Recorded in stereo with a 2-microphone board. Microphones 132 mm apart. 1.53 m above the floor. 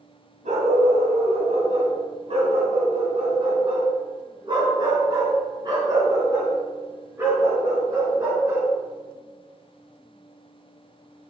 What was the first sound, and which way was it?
A dog barking, 65° right (ahead or behind).